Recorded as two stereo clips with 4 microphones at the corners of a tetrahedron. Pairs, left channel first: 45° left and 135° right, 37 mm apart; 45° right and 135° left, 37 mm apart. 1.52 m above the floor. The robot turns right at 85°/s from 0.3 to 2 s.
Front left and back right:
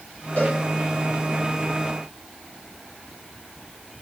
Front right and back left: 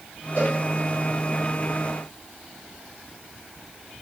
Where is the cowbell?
5° right, 3.5 m; by 0.6 s 10° left, 3.5 m.